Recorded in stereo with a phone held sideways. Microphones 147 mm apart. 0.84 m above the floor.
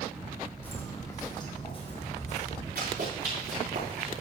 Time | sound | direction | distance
0.6 | footsteps | 10° left (ahead or behind) | 2.5 m
2.8 | running footsteps | 75° right (ahead or behind) | 5 m